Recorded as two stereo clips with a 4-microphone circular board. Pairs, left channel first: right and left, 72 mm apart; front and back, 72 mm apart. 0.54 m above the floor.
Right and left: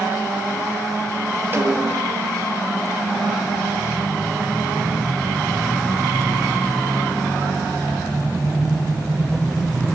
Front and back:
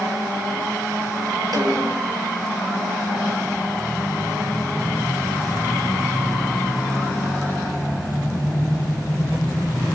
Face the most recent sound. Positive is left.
turn(degrees=150)